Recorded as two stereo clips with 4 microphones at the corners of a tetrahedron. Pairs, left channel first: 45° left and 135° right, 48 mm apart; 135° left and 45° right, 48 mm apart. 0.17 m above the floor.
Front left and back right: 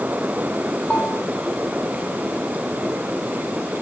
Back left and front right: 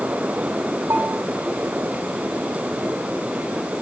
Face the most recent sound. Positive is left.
turn(degrees=-30)